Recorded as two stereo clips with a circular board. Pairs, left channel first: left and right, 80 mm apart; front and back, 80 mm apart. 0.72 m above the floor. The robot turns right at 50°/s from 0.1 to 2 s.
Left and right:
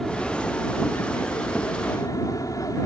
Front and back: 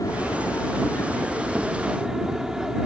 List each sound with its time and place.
0.0 s an aircraft: 5° left; by 2.9 s 100° left